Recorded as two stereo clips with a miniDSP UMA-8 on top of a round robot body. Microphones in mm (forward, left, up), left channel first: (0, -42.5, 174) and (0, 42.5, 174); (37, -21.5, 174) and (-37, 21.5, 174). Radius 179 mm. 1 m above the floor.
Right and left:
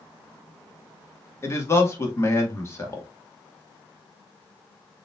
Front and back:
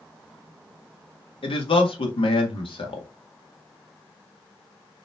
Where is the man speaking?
30° right, 1.6 m.